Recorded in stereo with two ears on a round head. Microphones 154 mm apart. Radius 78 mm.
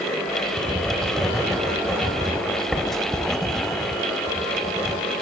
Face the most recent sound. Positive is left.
turn(degrees=0)  # may be behind; listen again after turning